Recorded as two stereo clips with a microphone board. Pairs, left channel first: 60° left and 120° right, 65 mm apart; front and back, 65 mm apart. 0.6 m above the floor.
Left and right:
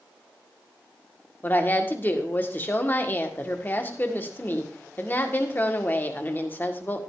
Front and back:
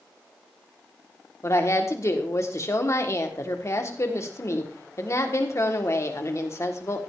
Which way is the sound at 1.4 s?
10° left.